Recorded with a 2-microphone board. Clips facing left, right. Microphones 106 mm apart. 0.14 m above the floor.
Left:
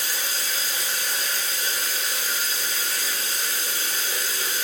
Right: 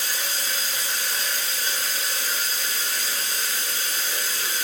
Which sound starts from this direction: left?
Running water, at 0.0 s.